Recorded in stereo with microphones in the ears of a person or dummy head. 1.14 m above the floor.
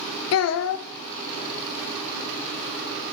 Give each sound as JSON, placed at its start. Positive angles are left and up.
{"t": 0.3, "sound": "a child speaking", "side_deg": 80, "distance_m": 0.5}